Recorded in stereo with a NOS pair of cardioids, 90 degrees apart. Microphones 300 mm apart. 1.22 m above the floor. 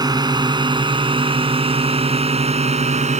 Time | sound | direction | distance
0.0 | a drone | 15° right | ?